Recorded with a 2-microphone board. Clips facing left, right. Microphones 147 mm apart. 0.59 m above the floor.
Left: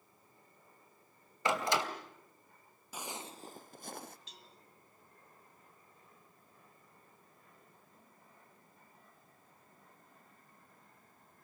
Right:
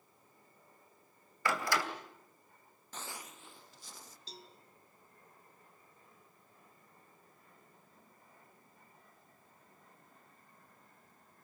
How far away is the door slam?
About 2.5 m.